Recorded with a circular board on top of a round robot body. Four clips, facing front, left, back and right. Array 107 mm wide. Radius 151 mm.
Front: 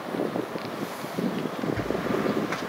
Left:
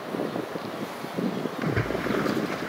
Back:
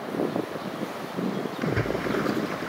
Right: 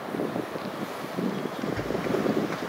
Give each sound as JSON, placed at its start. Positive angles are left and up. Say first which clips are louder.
{"t": 1.6, "sound": "a splash", "louder": "left 2 dB, back 2 dB", "azimuth_deg": 125}